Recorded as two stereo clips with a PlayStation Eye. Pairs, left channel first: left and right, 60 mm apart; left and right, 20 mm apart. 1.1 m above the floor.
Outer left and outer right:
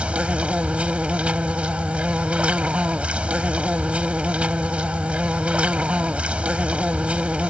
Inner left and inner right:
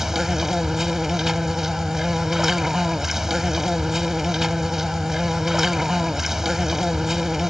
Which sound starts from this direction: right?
An insect, at 0.0 s.